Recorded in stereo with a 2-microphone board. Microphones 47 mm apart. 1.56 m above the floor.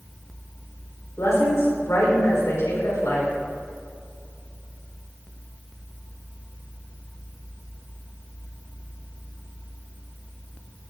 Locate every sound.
1.2 s a woman speaking: 80° left, 5 m